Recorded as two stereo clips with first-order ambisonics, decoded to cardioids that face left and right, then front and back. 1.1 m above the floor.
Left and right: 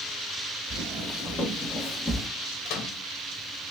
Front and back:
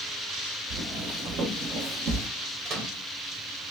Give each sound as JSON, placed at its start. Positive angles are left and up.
{"t": 0.7, "sound": "footsteps", "azimuth_deg": 180, "distance_m": 2.5}
{"t": 2.6, "sound": "a microwave", "azimuth_deg": 130, "distance_m": 1.5}